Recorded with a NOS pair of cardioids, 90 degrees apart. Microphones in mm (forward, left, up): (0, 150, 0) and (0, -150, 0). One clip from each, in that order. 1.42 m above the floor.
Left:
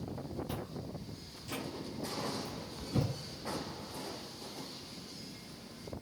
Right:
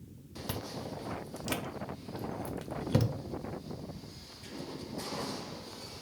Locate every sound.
0.5 s chewing: 65° right, 0.6 m